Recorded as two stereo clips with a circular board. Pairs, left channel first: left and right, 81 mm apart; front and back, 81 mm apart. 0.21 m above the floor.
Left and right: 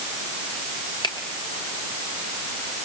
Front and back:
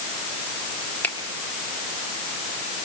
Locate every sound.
1.0 s a finger snap: 70° left, 3.5 m